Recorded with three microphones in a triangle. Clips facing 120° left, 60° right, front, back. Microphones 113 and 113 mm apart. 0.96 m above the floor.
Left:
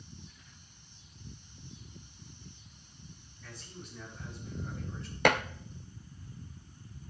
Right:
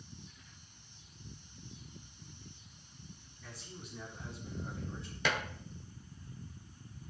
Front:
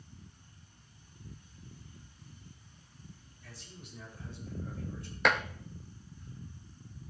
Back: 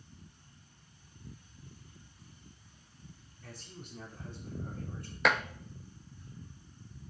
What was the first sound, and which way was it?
A man speaking, 145° right.